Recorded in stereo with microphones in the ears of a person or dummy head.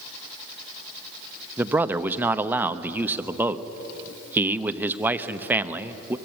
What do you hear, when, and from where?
1.6 s a man speaking: 10° right (ahead or behind), 0.8 m